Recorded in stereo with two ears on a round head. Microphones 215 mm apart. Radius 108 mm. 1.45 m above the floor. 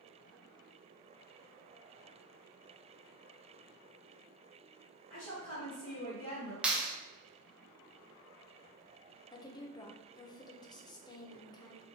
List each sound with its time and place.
5.1 s a woman speaking: 15° left (ahead or behind), 1.4 m
6.6 s a clap: 5° right (ahead or behind), 0.6 m
9.3 s a woman speaking: 20° left (ahead or behind), 0.7 m